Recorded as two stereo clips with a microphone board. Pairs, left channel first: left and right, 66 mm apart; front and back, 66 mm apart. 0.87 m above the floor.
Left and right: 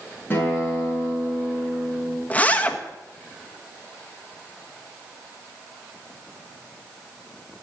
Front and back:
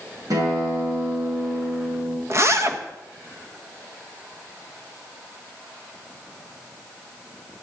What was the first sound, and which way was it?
A guitar, 155° left.